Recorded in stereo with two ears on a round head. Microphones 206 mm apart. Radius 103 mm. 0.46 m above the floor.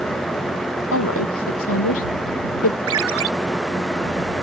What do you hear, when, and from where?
0.9 s a woman speaking: 70° left (ahead or behind)
2.9 s a ringtone: 70° right (ahead or behind)